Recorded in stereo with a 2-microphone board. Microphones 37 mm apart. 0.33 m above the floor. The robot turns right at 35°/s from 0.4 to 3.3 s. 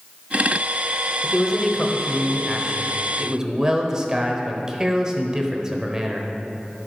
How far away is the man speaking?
About 1.1 m.